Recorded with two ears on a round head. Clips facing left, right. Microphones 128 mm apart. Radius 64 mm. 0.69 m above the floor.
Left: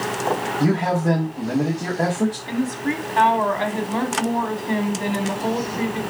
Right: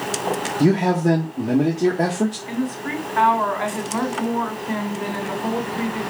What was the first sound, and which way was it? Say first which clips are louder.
A man speaking: right 4 dB; 25° right (ahead or behind).